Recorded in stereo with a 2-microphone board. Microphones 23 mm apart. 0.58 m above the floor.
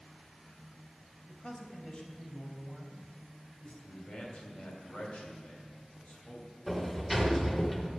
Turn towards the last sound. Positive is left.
turn(degrees=5)  # may be behind; listen again after turning